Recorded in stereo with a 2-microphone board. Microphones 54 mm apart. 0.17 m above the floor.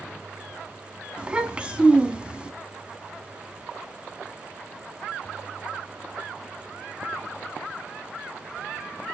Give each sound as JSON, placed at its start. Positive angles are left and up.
{"t": 1.2, "sound": "a child speaking", "side_deg": -20, "distance_m": 0.7}